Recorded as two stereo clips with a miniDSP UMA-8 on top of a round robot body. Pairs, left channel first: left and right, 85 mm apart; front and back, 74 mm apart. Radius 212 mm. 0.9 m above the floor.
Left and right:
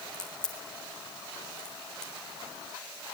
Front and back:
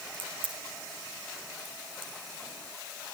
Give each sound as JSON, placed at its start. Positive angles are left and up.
{"t": 0.1, "sound": "a crack", "azimuth_deg": 175, "distance_m": 4.0}